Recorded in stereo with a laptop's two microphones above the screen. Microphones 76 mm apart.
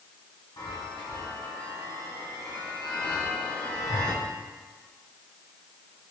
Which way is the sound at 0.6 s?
70° left (ahead or behind).